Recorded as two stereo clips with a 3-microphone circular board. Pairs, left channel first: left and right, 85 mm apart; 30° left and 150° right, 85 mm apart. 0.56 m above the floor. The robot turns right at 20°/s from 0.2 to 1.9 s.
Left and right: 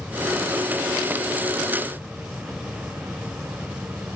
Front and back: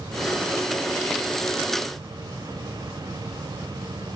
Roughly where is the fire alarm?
No fire alarm in this recording.